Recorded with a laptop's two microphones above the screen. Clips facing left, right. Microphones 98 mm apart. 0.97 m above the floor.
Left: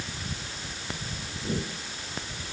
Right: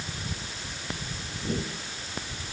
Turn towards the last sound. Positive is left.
No sound to turn to.